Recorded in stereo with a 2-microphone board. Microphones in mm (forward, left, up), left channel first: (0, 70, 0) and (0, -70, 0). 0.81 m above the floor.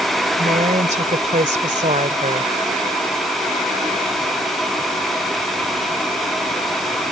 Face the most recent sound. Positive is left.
turn(degrees=-55)  # may be behind; listen again after turning